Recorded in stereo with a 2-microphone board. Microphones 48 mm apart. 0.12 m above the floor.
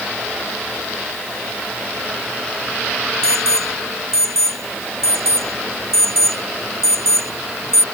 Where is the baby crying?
No baby crying in this recording.